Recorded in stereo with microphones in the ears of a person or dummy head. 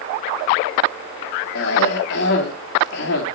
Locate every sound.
1.6 s a cough: 65° left (ahead or behind), 3.5 m